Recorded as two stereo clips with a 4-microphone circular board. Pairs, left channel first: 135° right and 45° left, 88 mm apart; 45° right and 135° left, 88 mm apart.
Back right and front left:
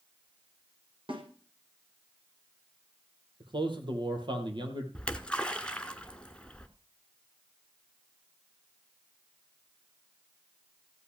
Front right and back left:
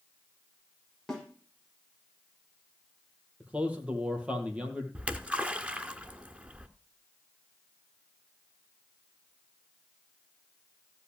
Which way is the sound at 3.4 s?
60° left.